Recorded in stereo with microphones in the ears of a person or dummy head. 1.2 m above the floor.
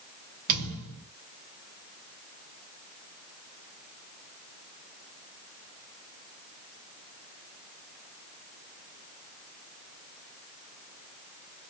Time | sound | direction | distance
0.5 | a thud | 50° right (ahead or behind) | 3 m